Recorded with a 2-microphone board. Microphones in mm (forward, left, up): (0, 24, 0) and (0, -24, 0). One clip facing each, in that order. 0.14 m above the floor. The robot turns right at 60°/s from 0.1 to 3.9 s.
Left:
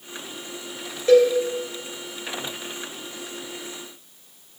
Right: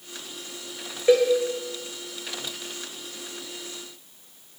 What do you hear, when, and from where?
1.1 s a cowbell: 20° right (ahead or behind), 3 m; by 1.3 s 35° right (ahead or behind), 3 m